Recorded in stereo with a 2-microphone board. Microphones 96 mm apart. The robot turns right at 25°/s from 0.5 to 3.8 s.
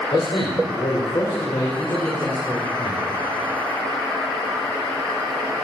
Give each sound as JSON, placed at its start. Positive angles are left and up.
{"t": 0.1, "sound": "a man speaking", "azimuth_deg": 105, "distance_m": 2.5}